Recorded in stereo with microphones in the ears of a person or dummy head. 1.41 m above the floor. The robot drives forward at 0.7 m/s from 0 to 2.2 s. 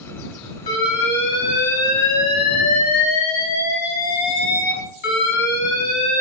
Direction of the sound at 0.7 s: 30° left (ahead or behind).